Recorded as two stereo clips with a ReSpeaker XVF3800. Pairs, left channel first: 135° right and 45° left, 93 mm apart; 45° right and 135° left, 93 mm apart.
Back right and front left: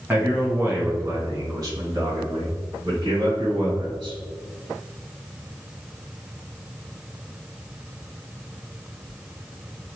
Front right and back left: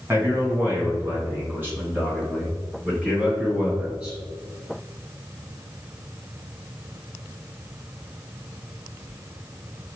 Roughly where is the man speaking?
Left.